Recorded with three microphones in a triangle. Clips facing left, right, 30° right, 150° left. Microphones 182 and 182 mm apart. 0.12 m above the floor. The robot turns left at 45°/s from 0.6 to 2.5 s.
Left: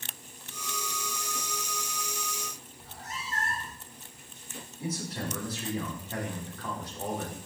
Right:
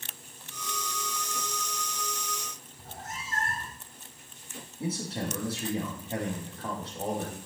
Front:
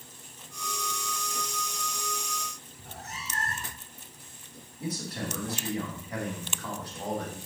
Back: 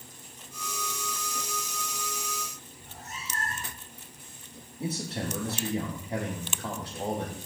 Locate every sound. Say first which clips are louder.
2.8 s a cat meowing: right 1 dB, front 2 dB; 45° right, 1.6 m
4.8 s a man speaking: right 2 dB, back 2 dB; 150° right, 4.5 m